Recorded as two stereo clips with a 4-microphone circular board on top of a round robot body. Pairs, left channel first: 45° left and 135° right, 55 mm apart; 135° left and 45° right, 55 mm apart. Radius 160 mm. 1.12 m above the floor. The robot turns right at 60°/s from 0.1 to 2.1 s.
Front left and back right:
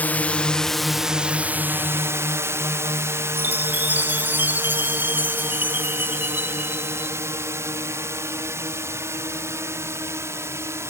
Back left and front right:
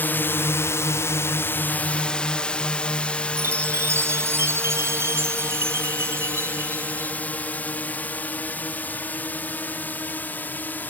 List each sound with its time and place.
0.0 s a drone: 95° left; by 10.9 s 170° right
3.4 s a chime: 80° right